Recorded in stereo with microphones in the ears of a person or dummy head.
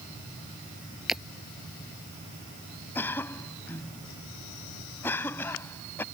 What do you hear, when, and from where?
1.1 s breaking glass: centre (ahead or behind)
3.0 s a cough: 15° left (ahead or behind)